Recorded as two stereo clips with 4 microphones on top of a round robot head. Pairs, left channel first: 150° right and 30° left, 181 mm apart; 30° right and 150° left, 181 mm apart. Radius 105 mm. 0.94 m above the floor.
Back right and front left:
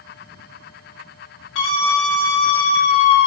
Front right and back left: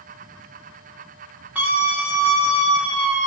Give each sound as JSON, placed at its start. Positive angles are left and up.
{"t": 1.6, "sound": "a scream", "azimuth_deg": -130, "distance_m": 3.0}